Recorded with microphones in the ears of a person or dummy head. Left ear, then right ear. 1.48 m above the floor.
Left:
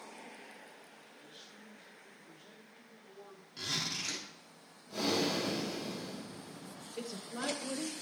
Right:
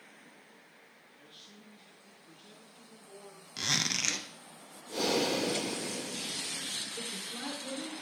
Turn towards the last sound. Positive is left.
turn(degrees=25)  # may be behind; listen again after turning